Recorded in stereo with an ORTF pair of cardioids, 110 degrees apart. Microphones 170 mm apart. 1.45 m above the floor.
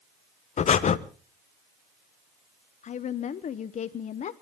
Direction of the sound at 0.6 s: 40° left.